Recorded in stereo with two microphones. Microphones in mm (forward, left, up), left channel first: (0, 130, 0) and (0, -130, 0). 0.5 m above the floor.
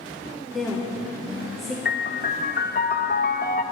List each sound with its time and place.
0.5 s a woman speaking: centre (ahead or behind), 1.9 m
1.9 s a piano: 35° left (ahead or behind), 0.6 m